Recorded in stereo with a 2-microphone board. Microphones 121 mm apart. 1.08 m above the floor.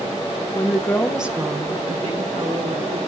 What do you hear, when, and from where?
0.5 s a woman speaking: 40° left (ahead or behind), 1.0 m; by 3.0 s 75° right (ahead or behind), 2 m